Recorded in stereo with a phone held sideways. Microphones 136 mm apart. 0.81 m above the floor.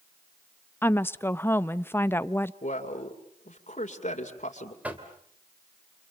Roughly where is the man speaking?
Left.